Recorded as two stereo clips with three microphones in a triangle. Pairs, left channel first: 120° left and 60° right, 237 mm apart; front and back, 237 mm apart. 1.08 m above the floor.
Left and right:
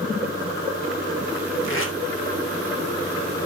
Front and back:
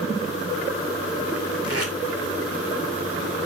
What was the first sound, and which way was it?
Tape being pulled, 155° left.